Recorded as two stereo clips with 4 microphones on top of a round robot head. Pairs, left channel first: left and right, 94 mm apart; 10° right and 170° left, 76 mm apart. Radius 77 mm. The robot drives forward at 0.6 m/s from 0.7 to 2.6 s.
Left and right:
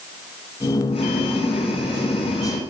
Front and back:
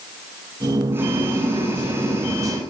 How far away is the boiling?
About 9.5 m.